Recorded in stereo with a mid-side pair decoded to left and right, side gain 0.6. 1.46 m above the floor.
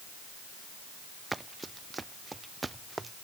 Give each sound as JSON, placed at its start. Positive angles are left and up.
{"t": 1.3, "sound": "running footsteps", "azimuth_deg": -15}